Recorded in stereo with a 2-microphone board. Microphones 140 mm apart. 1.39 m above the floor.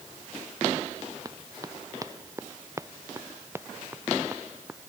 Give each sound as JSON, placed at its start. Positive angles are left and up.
{"t": 1.2, "sound": "running footsteps", "side_deg": -25}